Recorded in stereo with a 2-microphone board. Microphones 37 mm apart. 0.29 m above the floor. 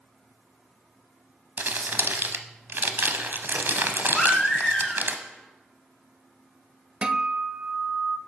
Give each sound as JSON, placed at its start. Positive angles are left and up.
{"t": 1.6, "sound": "crumpling", "side_deg": -60, "distance_m": 0.6}
{"t": 4.2, "sound": "a baby crying", "side_deg": 15, "distance_m": 1.6}
{"t": 7.0, "sound": "a guitar", "side_deg": -30, "distance_m": 0.5}